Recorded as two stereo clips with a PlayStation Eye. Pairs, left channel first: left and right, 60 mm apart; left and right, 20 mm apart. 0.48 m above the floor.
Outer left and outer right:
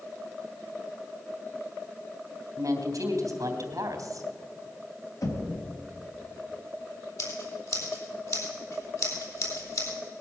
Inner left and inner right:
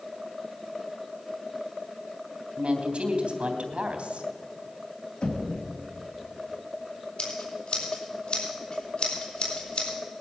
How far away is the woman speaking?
About 3 m.